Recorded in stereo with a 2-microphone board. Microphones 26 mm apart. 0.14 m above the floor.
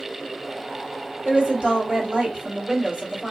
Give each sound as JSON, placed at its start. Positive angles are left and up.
{"t": 1.2, "sound": "a woman speaking", "side_deg": -30, "distance_m": 1.6}